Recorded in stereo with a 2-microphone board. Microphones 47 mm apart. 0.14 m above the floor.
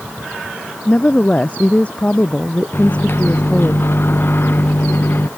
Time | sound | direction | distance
0.8 | a woman speaking | 30° left (ahead or behind) | ?
2.7 | a microwave | 50° left (ahead or behind) | ?